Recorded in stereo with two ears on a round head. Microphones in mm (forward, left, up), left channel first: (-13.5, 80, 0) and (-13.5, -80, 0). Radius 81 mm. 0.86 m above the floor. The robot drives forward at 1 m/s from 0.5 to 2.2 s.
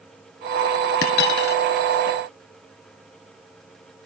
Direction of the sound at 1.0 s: 55° left (ahead or behind).